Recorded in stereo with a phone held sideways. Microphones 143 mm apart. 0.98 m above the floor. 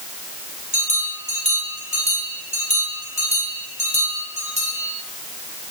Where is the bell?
55° right (ahead or behind), 7.5 m.